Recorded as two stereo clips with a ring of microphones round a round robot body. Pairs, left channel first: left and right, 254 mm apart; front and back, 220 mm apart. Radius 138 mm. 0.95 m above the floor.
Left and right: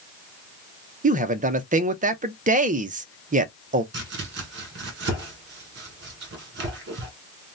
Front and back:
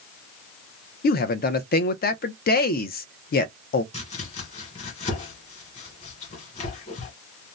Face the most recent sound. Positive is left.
turn(degrees=-55)